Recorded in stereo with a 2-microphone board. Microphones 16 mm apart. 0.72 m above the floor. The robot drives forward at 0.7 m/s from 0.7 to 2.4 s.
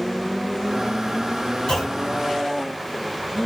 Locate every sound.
1.7 s a clunk: 60° left (ahead or behind), 6.5 m